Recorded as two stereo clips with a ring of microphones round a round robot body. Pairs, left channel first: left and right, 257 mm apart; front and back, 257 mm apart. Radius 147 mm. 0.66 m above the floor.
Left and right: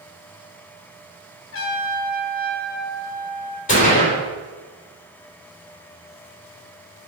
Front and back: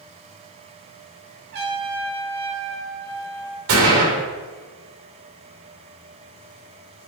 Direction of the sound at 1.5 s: 125° left.